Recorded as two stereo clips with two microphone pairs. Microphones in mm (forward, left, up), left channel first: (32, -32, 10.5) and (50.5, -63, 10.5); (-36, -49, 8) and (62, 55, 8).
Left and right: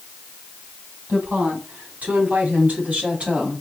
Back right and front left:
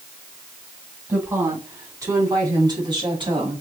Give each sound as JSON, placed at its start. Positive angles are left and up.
{"t": 1.1, "sound": "a woman speaking", "azimuth_deg": -25, "distance_m": 5.0}